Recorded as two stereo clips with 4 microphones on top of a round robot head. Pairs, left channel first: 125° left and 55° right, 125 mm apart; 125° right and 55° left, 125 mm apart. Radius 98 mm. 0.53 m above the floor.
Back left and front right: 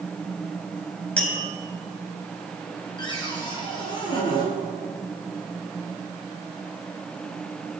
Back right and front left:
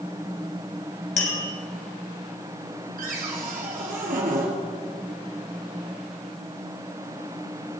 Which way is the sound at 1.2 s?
150° right.